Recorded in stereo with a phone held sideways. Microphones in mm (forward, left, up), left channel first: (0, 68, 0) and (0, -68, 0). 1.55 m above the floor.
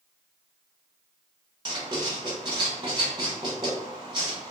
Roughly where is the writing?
Right.